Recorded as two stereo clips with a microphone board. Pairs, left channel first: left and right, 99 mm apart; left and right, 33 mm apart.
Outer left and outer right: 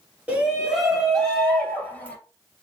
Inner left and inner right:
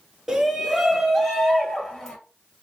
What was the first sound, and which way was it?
A shout, 15° right (ahead or behind).